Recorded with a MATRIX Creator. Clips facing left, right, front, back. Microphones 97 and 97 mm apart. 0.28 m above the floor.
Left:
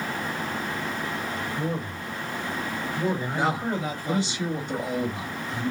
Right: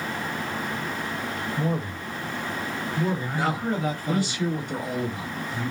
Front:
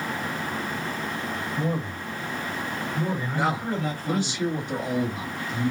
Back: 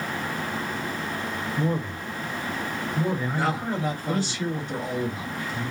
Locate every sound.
1.6 s a man speaking: 40° right, 1.3 m; by 4.3 s 125° left, 1.6 m
3.3 s a man speaking: 50° left, 1.3 m